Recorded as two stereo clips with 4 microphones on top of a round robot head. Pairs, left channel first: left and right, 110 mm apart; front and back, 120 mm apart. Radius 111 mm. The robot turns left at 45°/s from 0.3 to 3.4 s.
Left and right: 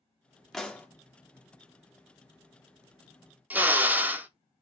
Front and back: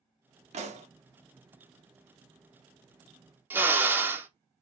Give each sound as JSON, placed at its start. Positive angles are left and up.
{"t": 0.5, "sound": "a pop", "azimuth_deg": 175, "distance_m": 1.0}
{"t": 3.5, "sound": "a drill", "azimuth_deg": -135, "distance_m": 0.6}